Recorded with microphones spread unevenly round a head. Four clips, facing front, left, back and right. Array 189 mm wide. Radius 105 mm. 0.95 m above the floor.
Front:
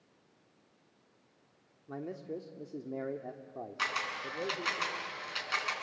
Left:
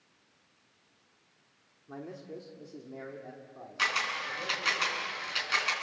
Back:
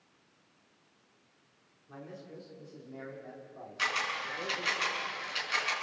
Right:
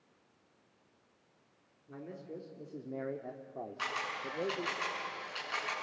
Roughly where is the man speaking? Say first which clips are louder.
Left 3 dB, front 7 dB; ahead.